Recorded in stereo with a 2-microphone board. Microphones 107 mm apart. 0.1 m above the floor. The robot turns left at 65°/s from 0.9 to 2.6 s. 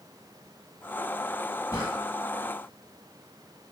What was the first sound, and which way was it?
A drawer, 35° left (ahead or behind).